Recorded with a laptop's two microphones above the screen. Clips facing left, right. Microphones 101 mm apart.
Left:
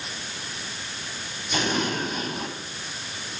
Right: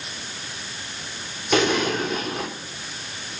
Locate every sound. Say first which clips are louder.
1.5 s an explosion: right 6 dB; 70° right (ahead or behind), 3.5 m